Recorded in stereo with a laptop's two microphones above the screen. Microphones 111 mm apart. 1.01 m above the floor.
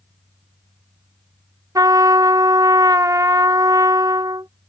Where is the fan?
45° right (ahead or behind).